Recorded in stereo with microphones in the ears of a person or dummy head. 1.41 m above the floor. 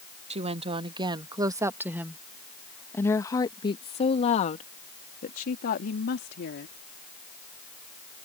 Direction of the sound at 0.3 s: 35° right (ahead or behind).